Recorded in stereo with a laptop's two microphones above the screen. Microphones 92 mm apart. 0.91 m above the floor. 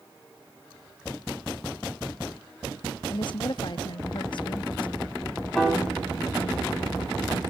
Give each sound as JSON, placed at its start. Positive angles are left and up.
{"t": 3.1, "sound": "a woman speaking", "side_deg": 55, "distance_m": 1.0}
{"t": 5.5, "sound": "a piano", "side_deg": 5, "distance_m": 6.0}